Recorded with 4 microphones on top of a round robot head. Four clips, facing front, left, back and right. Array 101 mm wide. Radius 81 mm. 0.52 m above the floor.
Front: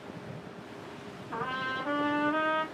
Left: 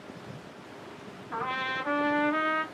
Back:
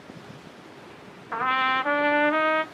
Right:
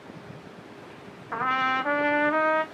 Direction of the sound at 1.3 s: 145° right.